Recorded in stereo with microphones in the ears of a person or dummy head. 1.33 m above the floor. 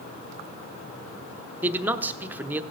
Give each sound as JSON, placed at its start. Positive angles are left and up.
{"t": 1.6, "sound": "a man speaking", "side_deg": -5, "distance_m": 0.7}